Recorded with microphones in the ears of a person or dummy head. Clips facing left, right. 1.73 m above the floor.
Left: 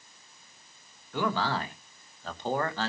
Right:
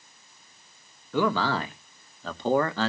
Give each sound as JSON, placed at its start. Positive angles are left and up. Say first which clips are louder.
{"t": 1.1, "sound": "a man speaking", "louder": "right 5 dB", "side_deg": -80, "distance_m": 2.5}